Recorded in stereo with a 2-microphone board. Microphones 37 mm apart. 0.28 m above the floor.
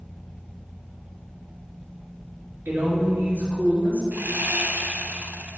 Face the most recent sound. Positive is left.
turn(degrees=-60)  # may be behind; listen again after turning